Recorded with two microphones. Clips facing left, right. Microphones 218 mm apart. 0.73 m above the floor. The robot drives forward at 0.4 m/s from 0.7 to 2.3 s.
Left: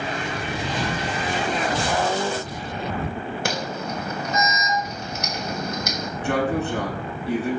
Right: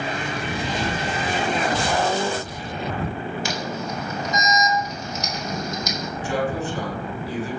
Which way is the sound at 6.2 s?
65° left (ahead or behind).